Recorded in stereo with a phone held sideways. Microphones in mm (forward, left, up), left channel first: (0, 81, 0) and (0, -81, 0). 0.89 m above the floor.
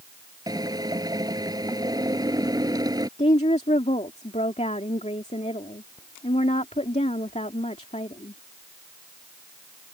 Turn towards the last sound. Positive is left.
turn(degrees=45)  # may be behind; listen again after turning